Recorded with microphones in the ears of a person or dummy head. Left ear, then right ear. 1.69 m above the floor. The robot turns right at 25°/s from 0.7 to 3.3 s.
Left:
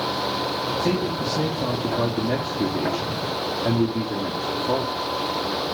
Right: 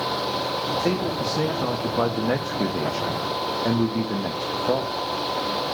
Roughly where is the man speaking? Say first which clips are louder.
Even; behind right.